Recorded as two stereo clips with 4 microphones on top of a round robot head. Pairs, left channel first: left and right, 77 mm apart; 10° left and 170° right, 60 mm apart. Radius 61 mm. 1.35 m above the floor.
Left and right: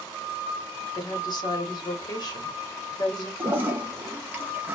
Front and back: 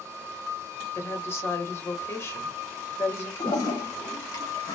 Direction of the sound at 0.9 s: 55° left.